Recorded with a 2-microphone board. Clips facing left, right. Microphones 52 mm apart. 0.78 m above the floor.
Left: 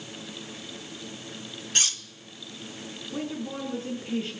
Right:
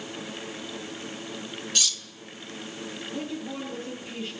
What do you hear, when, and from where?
1.8 s cutlery clinking: 35° left (ahead or behind), 1.1 m
3.1 s a woman speaking: 55° left (ahead or behind), 9 m